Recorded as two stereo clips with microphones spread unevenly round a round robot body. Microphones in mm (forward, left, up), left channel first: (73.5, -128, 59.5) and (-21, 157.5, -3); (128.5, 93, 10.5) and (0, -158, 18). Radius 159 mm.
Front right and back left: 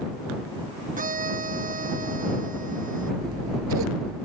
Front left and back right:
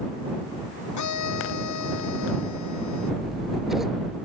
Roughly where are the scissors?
Behind left.